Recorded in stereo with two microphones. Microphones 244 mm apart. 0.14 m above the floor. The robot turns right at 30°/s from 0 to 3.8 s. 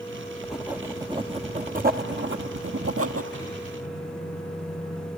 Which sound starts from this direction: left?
A microwave, at 3.3 s.